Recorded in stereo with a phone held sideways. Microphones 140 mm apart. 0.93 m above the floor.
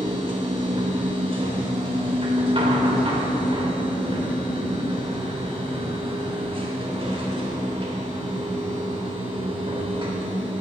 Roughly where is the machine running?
Right.